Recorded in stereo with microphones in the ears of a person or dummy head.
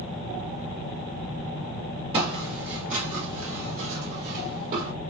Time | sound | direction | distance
2.1 | footsteps | 35° right (ahead or behind) | 2.5 m